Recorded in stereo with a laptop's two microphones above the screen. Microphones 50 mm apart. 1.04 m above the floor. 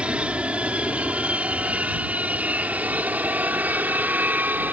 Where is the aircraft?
20° right (ahead or behind); by 4.7 s 35° right (ahead or behind).